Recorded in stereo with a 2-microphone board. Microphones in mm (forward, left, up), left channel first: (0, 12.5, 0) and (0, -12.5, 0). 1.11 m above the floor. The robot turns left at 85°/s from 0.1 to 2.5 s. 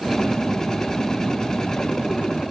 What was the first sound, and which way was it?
Only background noise.